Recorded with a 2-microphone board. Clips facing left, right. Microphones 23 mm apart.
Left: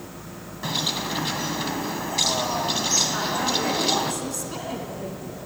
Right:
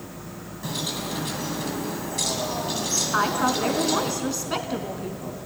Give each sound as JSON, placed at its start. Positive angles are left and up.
{"t": 0.6, "sound": "a bird", "side_deg": 35, "distance_m": 1.4}
{"t": 3.1, "sound": "a woman speaking", "side_deg": -40, "distance_m": 2.5}